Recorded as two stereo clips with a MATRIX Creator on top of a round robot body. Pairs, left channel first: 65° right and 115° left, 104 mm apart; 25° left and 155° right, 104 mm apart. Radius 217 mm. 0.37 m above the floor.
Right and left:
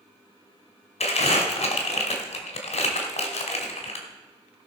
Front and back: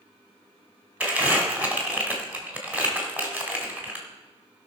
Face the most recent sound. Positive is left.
turn(degrees=-80)